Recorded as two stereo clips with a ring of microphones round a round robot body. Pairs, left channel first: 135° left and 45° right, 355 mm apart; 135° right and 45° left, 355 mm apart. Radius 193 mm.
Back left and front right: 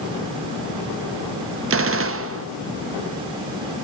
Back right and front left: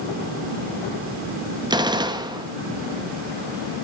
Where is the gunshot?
25° right, 0.8 m.